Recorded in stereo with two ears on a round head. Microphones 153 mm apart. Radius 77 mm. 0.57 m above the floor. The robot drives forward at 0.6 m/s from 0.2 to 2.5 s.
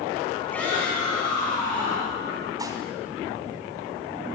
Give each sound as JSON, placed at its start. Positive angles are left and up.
{"t": 0.5, "sound": "a shout", "side_deg": 10, "distance_m": 4.5}
{"t": 2.6, "sound": "dishes clattering", "side_deg": -20, "distance_m": 2.5}